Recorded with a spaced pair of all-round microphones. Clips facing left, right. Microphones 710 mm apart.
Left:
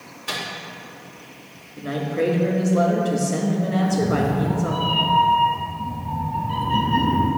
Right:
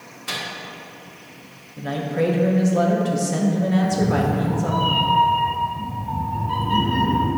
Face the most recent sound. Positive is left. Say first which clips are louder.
# even
turn(degrees=-40)  # may be behind; listen again after turning